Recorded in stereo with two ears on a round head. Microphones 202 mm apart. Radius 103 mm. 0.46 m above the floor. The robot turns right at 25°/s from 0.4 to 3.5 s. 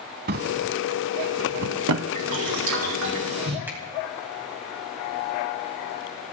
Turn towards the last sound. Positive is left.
turn(degrees=-10)  # may be behind; listen again after turning